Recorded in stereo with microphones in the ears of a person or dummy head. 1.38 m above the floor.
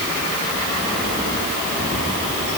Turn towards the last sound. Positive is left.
No sound to turn to.